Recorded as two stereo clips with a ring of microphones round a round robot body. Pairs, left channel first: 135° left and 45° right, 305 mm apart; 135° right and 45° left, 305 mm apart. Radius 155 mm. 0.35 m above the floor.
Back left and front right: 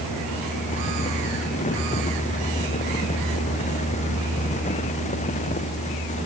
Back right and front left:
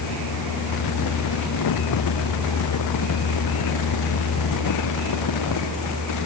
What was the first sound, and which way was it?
Only background noise.